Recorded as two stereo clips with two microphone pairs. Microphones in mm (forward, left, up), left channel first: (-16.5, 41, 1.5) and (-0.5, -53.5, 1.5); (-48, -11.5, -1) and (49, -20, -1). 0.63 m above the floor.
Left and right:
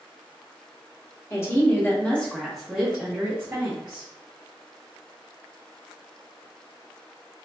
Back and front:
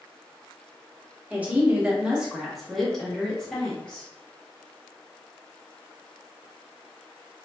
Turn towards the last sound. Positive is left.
turn(degrees=-120)